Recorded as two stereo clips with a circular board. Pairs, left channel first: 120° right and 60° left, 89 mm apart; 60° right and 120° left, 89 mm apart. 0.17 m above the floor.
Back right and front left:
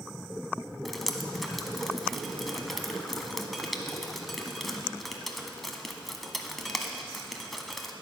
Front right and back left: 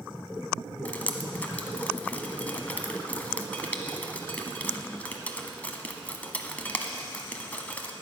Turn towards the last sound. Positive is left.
turn(degrees=-35)